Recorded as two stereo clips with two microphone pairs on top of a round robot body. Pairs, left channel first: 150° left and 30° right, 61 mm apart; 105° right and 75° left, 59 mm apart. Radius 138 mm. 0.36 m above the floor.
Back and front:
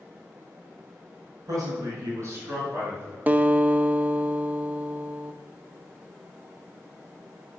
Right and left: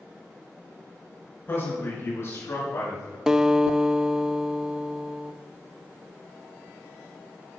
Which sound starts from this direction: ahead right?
A man speaking, at 1.5 s.